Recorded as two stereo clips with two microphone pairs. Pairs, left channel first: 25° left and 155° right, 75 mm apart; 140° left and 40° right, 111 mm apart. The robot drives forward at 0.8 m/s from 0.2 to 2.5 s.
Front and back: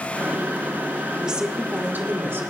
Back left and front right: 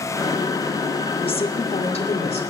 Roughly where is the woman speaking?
Behind left.